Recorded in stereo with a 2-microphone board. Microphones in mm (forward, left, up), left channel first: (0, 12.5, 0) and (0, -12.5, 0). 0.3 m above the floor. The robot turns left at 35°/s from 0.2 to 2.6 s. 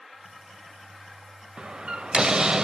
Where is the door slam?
90° right, 0.7 m; by 2.6 s 125° right, 0.7 m.